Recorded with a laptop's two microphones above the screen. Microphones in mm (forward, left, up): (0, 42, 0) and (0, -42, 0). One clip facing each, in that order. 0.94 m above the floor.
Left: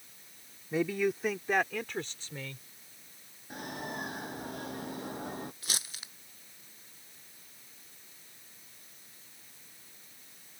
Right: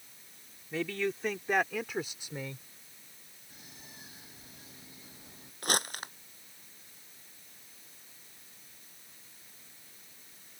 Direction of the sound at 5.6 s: 55° right (ahead or behind).